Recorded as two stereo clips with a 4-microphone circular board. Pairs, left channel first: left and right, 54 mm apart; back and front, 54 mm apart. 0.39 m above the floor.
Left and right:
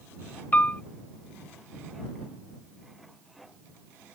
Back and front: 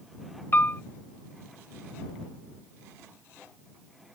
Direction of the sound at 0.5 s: 140° left.